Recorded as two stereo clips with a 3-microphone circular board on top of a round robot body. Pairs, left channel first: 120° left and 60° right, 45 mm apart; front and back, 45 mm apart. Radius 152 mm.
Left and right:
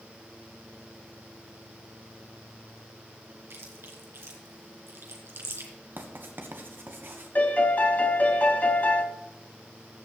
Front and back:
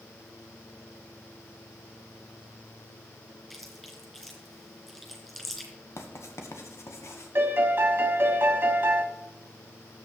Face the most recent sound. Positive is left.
turn(degrees=160)